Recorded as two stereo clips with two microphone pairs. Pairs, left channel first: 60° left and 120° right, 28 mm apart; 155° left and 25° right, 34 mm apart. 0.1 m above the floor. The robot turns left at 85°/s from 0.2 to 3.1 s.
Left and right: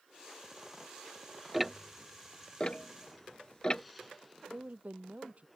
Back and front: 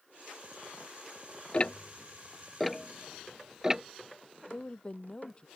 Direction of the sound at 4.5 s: 140° right.